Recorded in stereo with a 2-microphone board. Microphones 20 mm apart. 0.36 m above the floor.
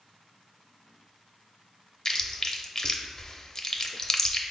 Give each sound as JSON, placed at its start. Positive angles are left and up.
{"t": 2.0, "sound": "chewing", "side_deg": 35, "distance_m": 0.5}